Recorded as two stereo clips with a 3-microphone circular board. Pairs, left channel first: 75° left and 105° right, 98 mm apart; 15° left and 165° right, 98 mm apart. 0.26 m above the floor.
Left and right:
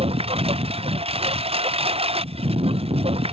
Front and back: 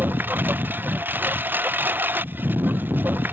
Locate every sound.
0.0 s a lawn mower: 95° right